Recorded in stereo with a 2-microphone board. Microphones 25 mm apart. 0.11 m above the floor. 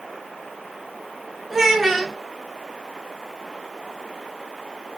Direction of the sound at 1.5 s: 15° right (ahead or behind).